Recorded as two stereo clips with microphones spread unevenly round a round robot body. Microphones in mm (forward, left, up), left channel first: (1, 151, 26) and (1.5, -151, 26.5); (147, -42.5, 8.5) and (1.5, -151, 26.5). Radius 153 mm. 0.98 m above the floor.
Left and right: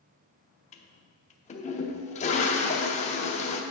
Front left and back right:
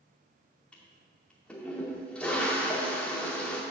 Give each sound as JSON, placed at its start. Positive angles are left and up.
{"t": 0.7, "sound": "a toilet flushing", "azimuth_deg": 130, "distance_m": 0.5}